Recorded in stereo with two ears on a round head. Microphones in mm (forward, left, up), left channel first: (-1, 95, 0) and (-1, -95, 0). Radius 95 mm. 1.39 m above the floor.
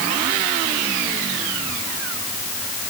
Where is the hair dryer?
No hair dryer in this recording.